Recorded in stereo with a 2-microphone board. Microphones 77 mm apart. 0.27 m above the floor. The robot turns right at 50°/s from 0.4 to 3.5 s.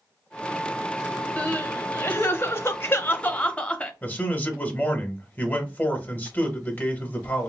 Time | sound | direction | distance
1.4 | crying | 40° left | 0.6 m
4.0 | a man speaking | 25° left (ahead or behind) | 1.0 m